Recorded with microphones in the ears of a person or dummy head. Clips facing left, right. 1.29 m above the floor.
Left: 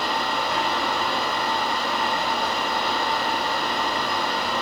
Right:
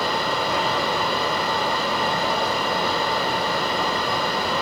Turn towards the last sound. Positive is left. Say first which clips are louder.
# right 2 dB
turn(degrees=-75)  # may be behind; listen again after turning